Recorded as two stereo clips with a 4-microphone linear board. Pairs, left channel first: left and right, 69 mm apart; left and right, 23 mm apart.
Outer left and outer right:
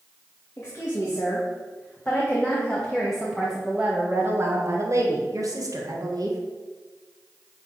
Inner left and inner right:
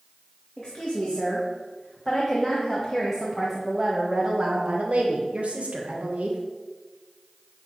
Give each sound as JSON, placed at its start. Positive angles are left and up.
{"t": 0.6, "sound": "a woman speaking", "side_deg": 40, "distance_m": 2.0}